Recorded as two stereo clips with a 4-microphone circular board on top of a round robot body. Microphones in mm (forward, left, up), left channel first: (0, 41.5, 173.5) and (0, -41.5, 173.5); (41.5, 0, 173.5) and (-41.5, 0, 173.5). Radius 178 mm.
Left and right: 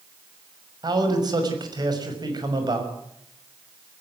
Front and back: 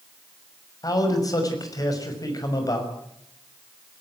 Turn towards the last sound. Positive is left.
turn(degrees=-45)